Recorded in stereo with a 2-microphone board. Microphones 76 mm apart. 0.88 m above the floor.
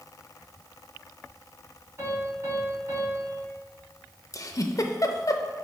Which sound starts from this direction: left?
A giggle, at 4.3 s.